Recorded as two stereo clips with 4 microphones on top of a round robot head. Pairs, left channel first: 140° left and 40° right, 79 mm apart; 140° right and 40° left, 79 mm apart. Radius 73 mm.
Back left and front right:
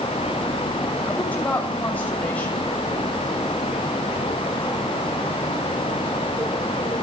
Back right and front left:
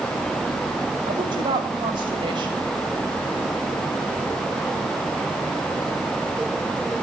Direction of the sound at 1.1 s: 65° left.